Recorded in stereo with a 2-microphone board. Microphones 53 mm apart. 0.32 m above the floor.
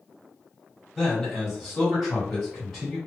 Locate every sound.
0.9 s a man speaking: 5° left (ahead or behind), 1.5 m